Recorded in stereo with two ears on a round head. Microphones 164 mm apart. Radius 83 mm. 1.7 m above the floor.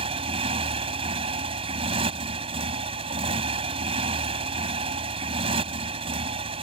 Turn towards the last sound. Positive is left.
turn(degrees=-35)  # may be behind; listen again after turning